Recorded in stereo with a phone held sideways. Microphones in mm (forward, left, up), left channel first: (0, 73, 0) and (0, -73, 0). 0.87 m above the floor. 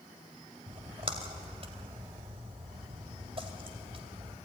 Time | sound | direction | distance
0.7 | a splash | 40° right (ahead or behind) | 2.5 m